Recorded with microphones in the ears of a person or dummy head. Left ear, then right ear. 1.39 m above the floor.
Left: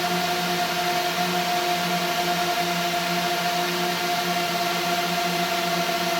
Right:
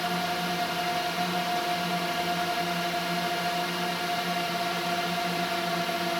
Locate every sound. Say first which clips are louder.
0.0 s a drone: left 5 dB; 10° left (ahead or behind)